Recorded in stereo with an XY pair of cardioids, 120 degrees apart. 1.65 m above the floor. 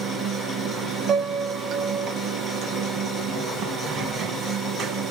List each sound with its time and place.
0.0 s running water: 65° right, 1.3 m
1.1 s a piano: 45° right, 0.8 m